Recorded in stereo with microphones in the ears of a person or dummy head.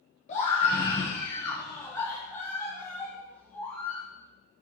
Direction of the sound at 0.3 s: 35° left (ahead or behind).